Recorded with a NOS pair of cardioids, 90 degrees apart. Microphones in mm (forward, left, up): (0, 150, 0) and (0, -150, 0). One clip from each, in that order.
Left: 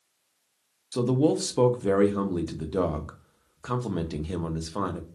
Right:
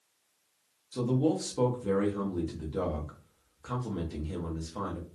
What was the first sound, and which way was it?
A man speaking, 40° left.